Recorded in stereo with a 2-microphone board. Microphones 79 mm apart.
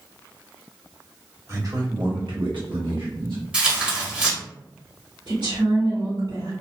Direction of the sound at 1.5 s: 35° right (ahead or behind).